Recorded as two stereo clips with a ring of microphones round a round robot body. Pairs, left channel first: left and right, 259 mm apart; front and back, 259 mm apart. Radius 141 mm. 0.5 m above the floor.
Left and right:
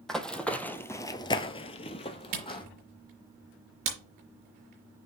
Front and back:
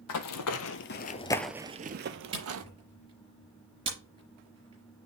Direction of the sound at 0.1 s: Straight ahead.